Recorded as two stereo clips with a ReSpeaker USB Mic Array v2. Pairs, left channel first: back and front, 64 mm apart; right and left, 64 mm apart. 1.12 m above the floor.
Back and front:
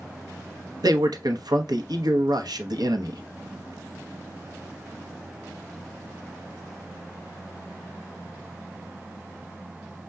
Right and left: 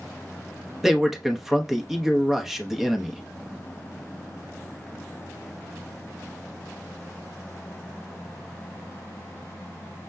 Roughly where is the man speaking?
Ahead.